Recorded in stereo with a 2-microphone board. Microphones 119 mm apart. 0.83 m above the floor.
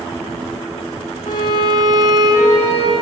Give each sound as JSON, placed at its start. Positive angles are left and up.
{"t": 1.3, "sound": "a violin", "side_deg": 70, "distance_m": 2.5}